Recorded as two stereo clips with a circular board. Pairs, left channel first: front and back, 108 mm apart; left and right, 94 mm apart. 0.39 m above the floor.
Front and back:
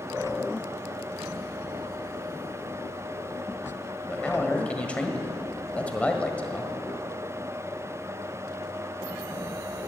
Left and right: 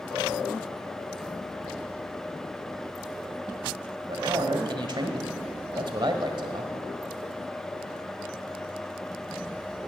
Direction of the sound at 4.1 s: 75° right.